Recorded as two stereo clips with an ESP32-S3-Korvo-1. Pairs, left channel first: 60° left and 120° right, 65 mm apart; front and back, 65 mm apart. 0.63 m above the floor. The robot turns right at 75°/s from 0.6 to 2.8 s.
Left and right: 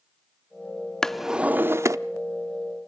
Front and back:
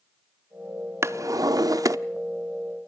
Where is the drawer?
135° left, 0.6 m; by 2.0 s 150° right, 0.6 m.